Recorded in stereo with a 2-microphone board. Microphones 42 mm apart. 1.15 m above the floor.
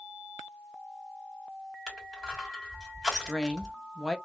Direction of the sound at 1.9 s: 5° right (ahead or behind).